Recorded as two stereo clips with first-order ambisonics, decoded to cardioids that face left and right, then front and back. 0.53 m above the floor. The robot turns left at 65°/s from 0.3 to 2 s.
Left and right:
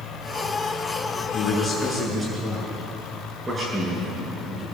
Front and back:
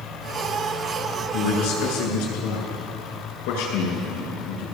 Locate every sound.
1.3 s a man speaking: 30° left, 8.5 m; by 4.7 s 15° right, 8.5 m